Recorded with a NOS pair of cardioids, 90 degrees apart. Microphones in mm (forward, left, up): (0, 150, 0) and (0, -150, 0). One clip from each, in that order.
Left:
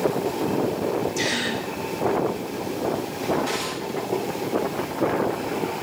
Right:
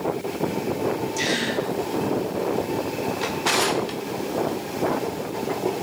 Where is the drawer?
60° right, 1.0 m.